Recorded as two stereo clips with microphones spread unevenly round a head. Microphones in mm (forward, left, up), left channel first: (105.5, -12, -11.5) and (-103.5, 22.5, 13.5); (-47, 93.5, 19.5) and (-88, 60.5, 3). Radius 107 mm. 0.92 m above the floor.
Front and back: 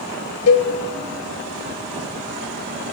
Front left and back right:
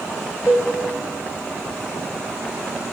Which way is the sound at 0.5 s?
30° right.